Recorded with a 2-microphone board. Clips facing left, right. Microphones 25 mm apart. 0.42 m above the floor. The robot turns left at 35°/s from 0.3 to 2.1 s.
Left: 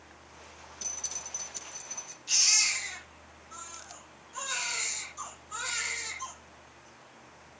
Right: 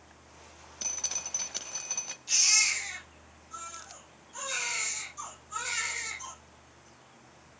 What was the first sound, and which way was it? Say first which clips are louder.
Dripping: right 3 dB; 25° right.